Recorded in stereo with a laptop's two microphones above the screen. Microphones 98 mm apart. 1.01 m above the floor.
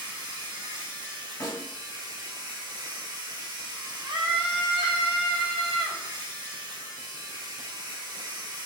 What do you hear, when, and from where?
0.0 s a machine running: 45° right (ahead or behind), 1.2 m
1.4 s a snare drum: 30° left (ahead or behind), 1.4 m
4.0 s a scream: 60° right (ahead or behind), 1.3 m